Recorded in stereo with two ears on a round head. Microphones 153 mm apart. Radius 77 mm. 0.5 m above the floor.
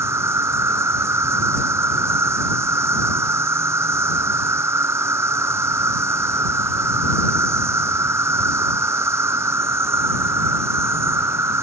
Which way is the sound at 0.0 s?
15° right (ahead or behind).